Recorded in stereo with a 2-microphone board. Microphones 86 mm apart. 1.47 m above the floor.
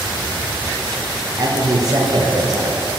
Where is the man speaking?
45° right (ahead or behind), 1.2 m.